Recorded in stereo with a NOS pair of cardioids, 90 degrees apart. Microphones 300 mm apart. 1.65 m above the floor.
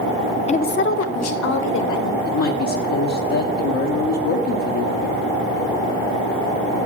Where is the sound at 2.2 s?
70° left, 1.1 m.